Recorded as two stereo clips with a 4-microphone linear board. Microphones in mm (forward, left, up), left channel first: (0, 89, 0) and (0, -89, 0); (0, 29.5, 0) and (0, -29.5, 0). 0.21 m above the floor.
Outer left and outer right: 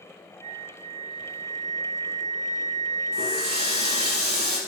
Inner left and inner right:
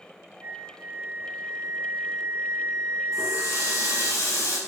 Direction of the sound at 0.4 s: 40° right (ahead or behind).